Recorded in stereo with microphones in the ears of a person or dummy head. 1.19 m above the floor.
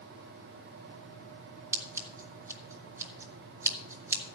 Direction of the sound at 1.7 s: 15° right (ahead or behind).